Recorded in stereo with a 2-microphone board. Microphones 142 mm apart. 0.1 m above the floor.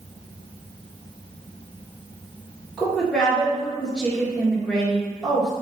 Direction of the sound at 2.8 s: 5° left (ahead or behind).